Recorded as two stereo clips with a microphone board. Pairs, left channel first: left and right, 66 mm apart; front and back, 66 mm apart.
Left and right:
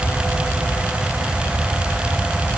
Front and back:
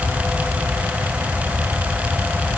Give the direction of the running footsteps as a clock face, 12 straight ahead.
No running footsteps in this recording.